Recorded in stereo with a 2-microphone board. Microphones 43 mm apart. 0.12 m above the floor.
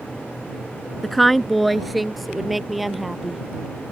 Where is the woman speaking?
5° left (ahead or behind); by 3.4 s 5° right (ahead or behind).